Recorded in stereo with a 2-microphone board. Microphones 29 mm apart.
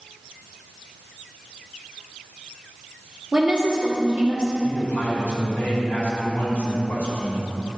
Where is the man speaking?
70° left (ahead or behind), 2.5 m.